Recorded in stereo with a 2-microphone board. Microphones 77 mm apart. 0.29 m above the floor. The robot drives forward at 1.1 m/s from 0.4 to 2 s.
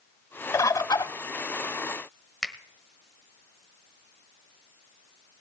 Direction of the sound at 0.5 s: 40° left (ahead or behind).